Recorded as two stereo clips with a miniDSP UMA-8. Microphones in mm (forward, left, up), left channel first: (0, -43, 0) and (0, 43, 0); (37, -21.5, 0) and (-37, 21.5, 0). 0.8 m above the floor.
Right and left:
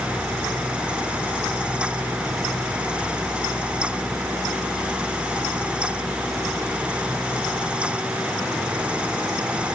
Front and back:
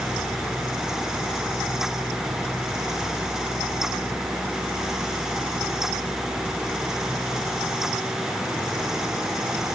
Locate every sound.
Only background noise.